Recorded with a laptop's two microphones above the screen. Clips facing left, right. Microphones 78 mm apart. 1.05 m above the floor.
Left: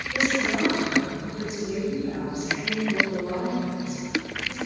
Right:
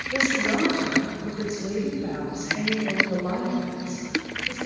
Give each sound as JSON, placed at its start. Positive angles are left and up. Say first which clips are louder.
{"t": 0.1, "sound": "a woman speaking", "louder": "right 1 dB", "side_deg": -70, "distance_m": 2.0}